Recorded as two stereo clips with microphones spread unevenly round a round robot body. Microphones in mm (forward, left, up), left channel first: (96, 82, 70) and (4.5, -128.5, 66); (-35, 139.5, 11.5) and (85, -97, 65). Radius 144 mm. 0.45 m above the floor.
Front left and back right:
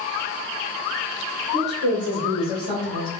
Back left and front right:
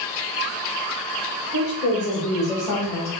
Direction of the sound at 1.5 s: 70° left.